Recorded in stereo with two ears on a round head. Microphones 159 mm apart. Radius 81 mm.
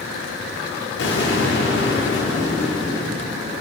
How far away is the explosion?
About 1.6 m.